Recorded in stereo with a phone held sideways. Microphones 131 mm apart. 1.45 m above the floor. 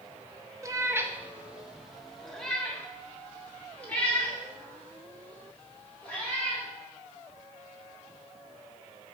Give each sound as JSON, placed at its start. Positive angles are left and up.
{"t": 0.6, "sound": "a cat meowing", "side_deg": -25, "distance_m": 0.7}